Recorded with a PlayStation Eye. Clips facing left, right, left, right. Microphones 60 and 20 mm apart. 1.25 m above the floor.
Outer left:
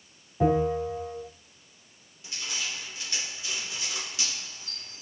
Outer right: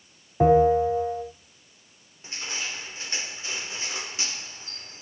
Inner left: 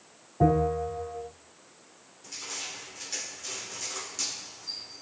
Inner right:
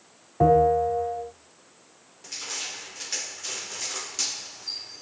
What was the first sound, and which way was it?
A bell, 45° right (ahead or behind).